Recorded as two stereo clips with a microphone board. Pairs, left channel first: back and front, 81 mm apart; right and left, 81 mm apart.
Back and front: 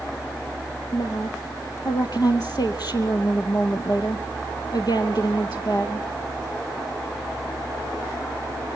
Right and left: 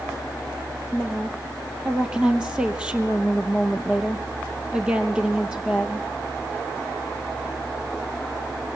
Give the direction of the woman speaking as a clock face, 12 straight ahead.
6 o'clock.